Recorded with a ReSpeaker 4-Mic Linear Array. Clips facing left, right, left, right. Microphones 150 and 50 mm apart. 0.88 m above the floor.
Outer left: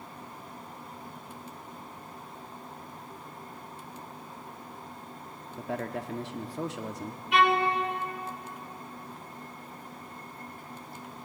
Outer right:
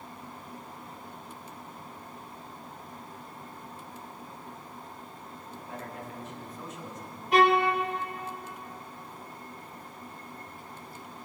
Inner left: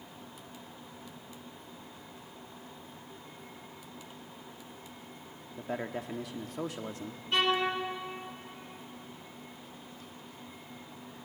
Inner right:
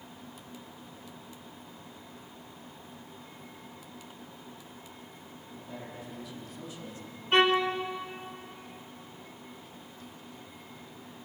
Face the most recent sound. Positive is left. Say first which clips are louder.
# outer right 2 dB, inner right 4 dB
turn(degrees=-40)  # may be behind; listen again after turning